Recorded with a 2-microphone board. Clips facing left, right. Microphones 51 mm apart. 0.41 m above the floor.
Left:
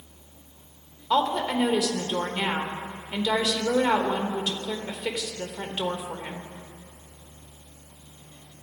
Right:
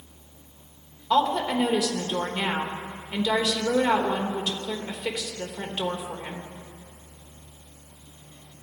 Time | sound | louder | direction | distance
1.1 | a woman speaking | right 1 dB | 5° left (ahead or behind) | 1.2 m